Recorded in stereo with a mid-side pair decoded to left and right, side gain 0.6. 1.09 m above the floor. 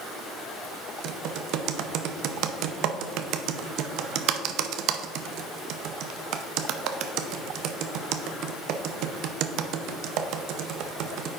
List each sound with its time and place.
1.0 s typing on a keyboard: 65° right, 0.6 m